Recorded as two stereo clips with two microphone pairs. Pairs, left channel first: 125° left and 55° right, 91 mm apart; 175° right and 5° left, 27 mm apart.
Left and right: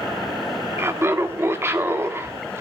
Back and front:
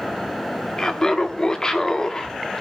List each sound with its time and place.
0.8 s laughter: 120° right, 1.4 m